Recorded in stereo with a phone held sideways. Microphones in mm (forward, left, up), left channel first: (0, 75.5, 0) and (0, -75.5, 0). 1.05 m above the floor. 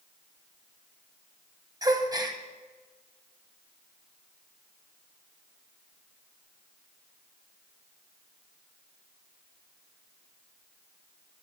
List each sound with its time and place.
1.8 s a gasp: 25° right (ahead or behind), 1.0 m